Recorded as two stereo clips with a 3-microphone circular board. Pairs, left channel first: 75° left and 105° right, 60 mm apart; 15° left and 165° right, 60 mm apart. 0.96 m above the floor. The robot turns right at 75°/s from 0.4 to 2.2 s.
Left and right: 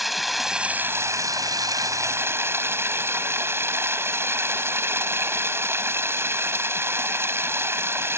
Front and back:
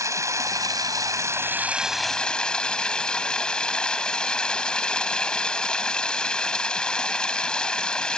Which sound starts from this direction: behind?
Running water, at 0.0 s.